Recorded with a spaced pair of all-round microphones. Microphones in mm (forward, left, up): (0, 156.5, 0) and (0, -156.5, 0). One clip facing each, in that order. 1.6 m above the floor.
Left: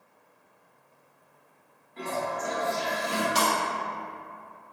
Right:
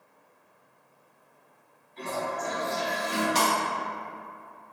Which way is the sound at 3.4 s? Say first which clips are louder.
Even; centre (ahead or behind).